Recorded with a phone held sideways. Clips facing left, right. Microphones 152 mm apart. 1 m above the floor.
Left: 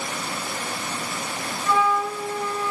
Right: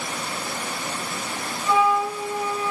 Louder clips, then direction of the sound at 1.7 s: Right 2 dB; 10° right (ahead or behind).